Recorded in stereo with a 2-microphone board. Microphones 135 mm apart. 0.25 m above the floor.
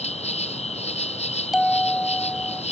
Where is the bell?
5° right (ahead or behind).